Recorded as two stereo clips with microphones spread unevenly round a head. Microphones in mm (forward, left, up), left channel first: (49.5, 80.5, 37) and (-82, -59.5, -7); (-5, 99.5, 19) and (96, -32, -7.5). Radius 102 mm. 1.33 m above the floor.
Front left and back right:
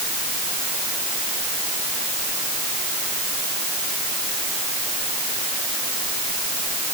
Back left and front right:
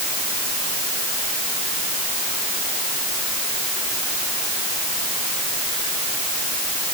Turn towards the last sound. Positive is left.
No sound to turn to.